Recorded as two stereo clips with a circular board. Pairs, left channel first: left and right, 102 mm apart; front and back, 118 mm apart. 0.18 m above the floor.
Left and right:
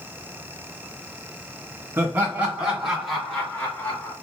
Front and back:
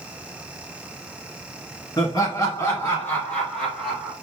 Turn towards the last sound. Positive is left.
turn(degrees=105)